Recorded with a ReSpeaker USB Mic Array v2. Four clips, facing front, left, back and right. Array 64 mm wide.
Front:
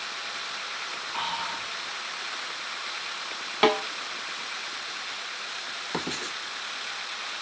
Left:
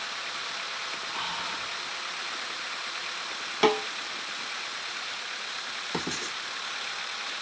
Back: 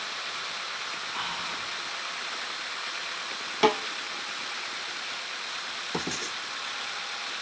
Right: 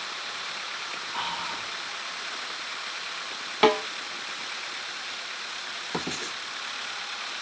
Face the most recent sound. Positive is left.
turn(degrees=-15)